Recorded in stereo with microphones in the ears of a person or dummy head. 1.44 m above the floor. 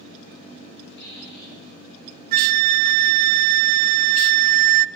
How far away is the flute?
About 0.5 m.